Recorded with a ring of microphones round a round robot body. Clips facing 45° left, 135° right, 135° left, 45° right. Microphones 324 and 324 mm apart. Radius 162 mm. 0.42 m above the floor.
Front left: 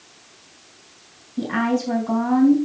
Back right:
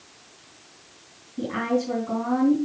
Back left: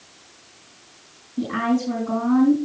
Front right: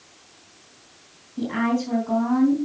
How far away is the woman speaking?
About 3.5 m.